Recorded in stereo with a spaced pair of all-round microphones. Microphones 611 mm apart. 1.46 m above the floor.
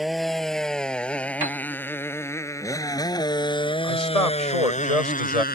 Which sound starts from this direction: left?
A man speaking, at 3.8 s.